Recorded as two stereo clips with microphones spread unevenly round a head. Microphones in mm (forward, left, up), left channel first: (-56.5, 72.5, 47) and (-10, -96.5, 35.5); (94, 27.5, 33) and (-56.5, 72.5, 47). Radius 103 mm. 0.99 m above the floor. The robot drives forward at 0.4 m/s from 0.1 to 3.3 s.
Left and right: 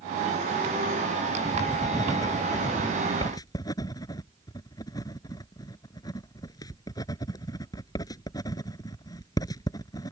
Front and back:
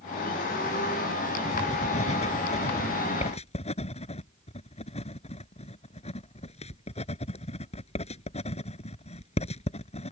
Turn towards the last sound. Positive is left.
turn(degrees=35)